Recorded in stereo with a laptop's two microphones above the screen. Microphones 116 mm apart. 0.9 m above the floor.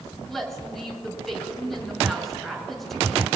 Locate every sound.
0.3 s a woman speaking: 5° left (ahead or behind), 6.5 m